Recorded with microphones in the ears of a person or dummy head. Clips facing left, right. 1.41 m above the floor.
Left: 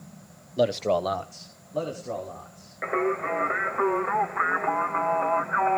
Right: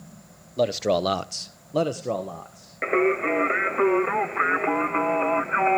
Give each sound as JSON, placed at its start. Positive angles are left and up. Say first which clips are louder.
{"t": 0.6, "sound": "a man speaking", "louder": "right 1 dB", "side_deg": 5, "distance_m": 0.9}
{"t": 2.8, "sound": "singing", "louder": "right 5 dB", "side_deg": -40, "distance_m": 0.6}